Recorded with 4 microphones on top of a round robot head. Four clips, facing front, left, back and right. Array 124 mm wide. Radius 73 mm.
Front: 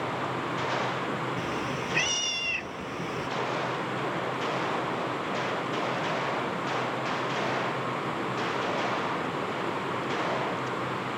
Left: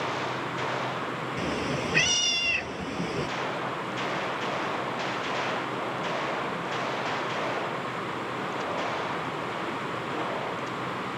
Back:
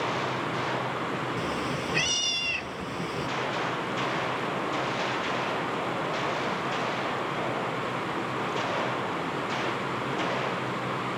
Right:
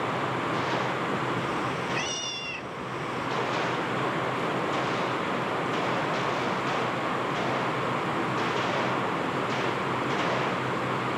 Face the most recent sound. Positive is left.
turn(degrees=100)